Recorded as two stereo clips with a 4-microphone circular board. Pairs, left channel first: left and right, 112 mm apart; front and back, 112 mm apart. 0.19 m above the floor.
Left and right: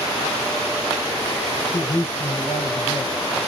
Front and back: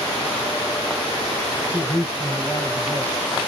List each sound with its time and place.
1.7 s a man speaking: 90° left, 3 m